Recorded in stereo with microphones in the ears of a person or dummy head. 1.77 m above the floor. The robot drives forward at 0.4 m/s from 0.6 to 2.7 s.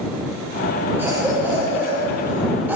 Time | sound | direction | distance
1.0 | a cough | 10° right (ahead or behind) | 7.5 m